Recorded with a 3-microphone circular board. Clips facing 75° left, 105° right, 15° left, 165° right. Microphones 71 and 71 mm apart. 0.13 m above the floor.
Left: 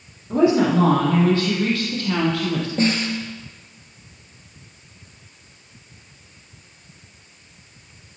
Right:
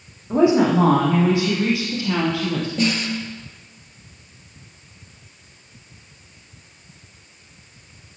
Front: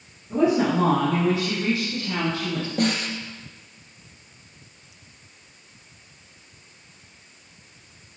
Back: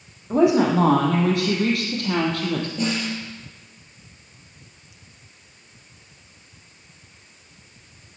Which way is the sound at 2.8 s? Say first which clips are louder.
Left 2 dB, front 1 dB; 25° left.